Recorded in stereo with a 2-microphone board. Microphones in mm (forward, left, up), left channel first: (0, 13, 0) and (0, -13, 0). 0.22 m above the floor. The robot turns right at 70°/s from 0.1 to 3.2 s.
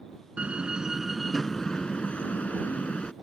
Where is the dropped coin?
No dropped coin in this recording.